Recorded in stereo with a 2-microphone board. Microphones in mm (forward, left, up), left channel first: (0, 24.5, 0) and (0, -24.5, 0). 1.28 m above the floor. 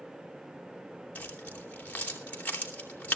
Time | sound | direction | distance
1.1 | keys jangling | 30° left (ahead or behind) | 3 m